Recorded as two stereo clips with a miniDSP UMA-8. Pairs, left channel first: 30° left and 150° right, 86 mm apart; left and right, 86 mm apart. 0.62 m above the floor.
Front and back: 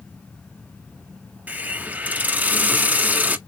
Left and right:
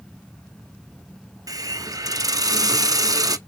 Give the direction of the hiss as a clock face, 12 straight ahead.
3 o'clock.